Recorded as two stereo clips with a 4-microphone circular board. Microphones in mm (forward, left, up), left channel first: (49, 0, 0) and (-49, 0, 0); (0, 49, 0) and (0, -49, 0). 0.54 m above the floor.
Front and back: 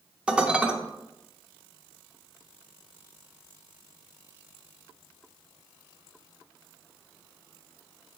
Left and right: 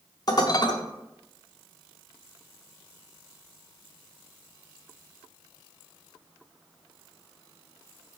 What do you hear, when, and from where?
0.3 s dishes clattering: 105° left, 0.8 m